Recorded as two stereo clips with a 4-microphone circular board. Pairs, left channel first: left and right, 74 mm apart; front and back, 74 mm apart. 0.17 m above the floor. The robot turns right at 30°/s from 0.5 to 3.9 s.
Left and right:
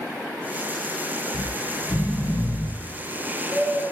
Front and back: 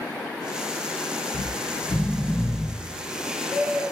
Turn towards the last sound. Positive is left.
turn(degrees=130)